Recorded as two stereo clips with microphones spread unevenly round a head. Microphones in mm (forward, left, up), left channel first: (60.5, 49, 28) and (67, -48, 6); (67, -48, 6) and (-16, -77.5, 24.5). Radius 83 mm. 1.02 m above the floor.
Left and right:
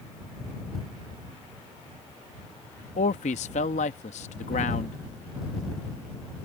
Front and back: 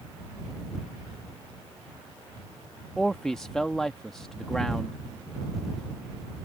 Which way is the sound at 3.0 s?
105° left.